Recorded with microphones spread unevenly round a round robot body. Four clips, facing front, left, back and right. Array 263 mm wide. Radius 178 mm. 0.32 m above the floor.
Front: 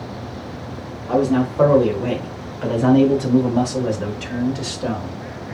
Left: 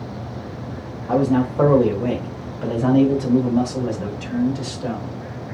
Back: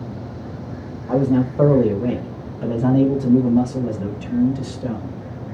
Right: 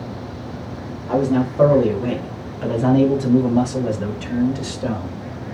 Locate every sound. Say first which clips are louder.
1.1 s a man speaking: even, even; 155° left, 1.8 m; by 5.2 s 25° right, 2 m